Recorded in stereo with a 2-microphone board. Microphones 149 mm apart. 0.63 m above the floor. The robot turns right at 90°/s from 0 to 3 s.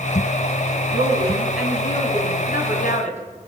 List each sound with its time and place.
0.9 s a woman speaking: 65° right, 4.5 m; by 3.2 s 125° left, 4.5 m